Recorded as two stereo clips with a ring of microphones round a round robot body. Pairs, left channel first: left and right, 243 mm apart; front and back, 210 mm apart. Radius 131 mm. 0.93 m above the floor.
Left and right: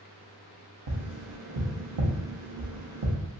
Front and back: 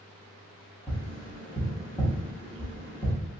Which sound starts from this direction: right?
Tapping, at 0.9 s.